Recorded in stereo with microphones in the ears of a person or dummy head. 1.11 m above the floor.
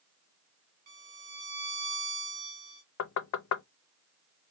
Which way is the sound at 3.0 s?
80° left.